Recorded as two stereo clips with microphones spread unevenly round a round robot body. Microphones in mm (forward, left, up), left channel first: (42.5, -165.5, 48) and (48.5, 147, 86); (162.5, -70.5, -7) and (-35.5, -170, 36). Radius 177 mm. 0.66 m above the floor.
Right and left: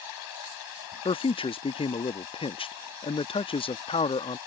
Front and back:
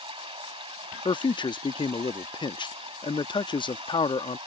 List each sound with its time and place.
0.0 s running water: 90° right
1.1 s a man speaking: 30° right